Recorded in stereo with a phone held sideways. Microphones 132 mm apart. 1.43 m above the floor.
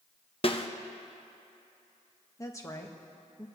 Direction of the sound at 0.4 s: 45° left (ahead or behind).